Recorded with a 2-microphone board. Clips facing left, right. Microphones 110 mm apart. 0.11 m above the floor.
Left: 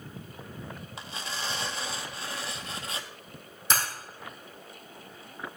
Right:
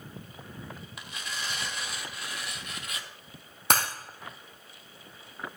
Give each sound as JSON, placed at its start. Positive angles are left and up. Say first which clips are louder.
{"t": 1.0, "sound": "tearing paper", "louder": "left 2 dB", "side_deg": 30, "distance_m": 1.0}
{"t": 3.7, "sound": "breaking glass", "louder": "right 3 dB", "side_deg": -65, "distance_m": 2.5}